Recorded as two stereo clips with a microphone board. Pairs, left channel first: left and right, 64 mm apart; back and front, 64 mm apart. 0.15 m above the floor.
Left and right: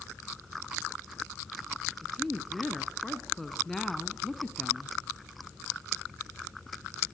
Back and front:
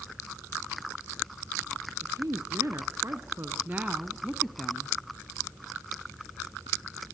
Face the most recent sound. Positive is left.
turn(degrees=160)